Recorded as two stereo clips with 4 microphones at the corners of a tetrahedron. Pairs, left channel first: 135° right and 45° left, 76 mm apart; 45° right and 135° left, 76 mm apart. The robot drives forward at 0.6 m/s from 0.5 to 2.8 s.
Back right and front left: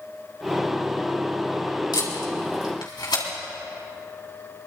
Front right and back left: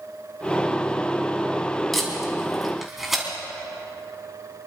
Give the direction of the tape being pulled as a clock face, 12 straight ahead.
4 o'clock.